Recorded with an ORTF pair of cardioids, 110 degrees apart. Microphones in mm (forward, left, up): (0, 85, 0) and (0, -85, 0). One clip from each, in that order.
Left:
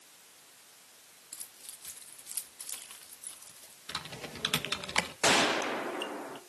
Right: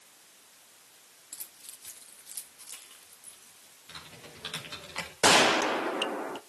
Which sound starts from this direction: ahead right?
A gunshot, at 5.2 s.